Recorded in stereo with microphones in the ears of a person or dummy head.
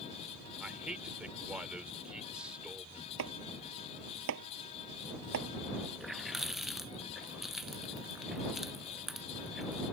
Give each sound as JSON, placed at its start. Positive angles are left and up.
{"t": 0.6, "sound": "a man speaking", "side_deg": -5}
{"t": 3.2, "sound": "chopping", "side_deg": -65}
{"t": 6.0, "sound": "a running tap", "side_deg": 0}